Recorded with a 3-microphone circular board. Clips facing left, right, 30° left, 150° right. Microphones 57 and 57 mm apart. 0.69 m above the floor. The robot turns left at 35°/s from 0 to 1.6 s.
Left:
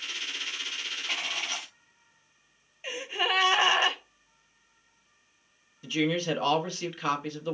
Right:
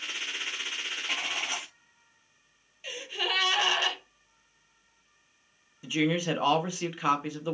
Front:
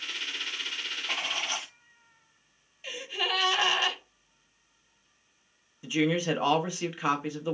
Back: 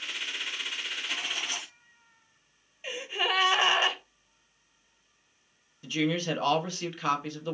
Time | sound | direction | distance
1.1 | writing | straight ahead | 0.7 m
2.8 | a gasp | 145° left | 0.6 m
5.8 | a woman speaking | 30° right | 0.7 m